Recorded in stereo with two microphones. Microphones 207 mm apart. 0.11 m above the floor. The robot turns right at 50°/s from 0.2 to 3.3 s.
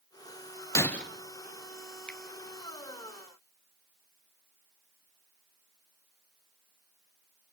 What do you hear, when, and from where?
0.8 s breaking glass: 15° left (ahead or behind), 1.3 m; by 1.1 s 5° left (ahead or behind), 1.3 m
2.1 s a finger snap: 5° left (ahead or behind), 1.7 m; by 2.2 s 10° left (ahead or behind), 1.7 m